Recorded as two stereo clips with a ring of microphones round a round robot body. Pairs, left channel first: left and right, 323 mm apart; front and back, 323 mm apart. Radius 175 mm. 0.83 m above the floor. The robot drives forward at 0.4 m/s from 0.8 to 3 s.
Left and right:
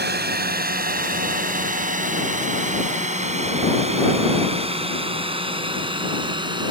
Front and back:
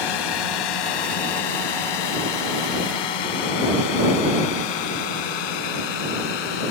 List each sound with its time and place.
0.0 s a drone: 30° right; by 6.7 s 15° right